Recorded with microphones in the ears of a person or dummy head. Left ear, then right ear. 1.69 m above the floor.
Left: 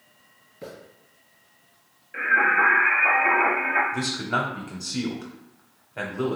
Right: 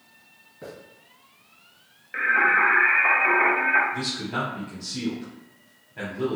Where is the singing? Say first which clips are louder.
Even; 40° right (ahead or behind), 0.8 m.